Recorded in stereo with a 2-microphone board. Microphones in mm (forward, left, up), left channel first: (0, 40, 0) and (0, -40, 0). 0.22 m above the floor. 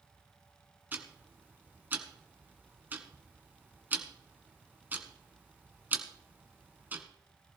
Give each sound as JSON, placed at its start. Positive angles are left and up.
{"t": 0.9, "sound": "ticking", "side_deg": -25, "distance_m": 1.8}